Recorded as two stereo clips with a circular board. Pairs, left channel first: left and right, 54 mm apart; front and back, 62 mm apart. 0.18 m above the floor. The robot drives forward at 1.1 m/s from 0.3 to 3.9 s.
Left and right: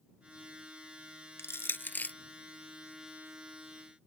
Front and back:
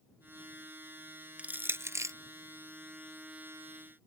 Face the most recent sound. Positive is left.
turn(degrees=165)